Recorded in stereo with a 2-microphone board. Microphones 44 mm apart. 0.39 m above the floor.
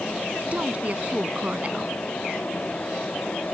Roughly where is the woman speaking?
Right.